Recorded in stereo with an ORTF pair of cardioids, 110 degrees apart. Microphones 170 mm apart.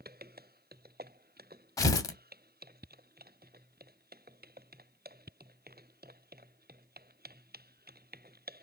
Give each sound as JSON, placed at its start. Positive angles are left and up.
{"t": 1.8, "sound": "tearing paper", "azimuth_deg": 20, "distance_m": 0.6}